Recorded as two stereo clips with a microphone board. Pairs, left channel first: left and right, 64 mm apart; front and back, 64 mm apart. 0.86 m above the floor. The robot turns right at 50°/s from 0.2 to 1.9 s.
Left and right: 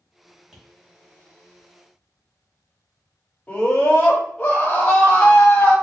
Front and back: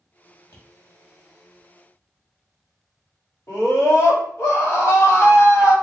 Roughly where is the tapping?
Ahead.